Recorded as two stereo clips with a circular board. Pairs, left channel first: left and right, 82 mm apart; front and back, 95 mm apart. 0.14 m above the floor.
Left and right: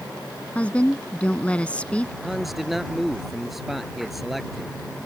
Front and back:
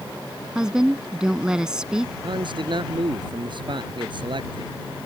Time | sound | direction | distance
0.6 | a woman speaking | 115° left | ?
2.2 | a man speaking | straight behind | ?